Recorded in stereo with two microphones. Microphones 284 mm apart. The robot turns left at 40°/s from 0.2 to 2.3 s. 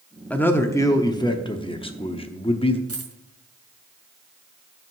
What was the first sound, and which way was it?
A man speaking, 5° left (ahead or behind).